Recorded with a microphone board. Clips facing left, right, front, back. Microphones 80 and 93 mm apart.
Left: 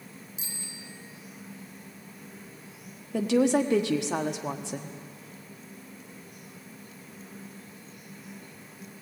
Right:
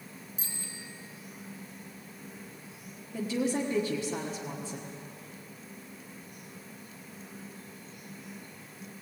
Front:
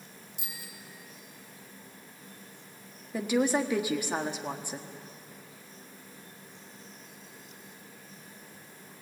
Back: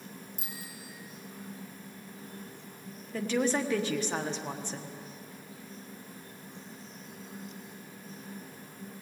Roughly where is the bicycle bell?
Behind right.